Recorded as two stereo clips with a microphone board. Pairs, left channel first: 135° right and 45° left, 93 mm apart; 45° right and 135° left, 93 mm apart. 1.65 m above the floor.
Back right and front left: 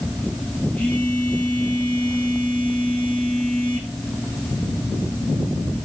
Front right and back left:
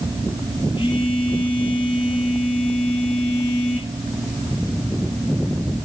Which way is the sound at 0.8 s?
60° right.